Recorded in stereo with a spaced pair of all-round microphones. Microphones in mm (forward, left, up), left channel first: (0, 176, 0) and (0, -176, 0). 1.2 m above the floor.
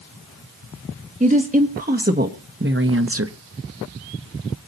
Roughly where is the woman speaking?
Right.